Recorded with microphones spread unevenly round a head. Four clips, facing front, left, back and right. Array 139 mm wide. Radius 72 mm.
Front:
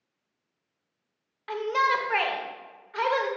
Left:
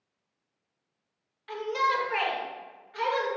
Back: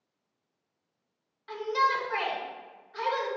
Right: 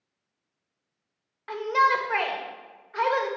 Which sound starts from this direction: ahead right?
A shout, at 1.5 s.